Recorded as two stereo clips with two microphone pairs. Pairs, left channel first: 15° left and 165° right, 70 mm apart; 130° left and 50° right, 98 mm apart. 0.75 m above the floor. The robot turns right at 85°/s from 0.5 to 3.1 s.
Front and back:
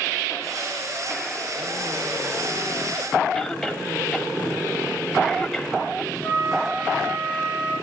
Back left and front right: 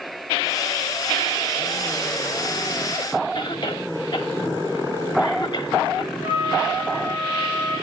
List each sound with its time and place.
3.4 s a cough: 100° left, 2 m
6.2 s a flute: 130° left, 8 m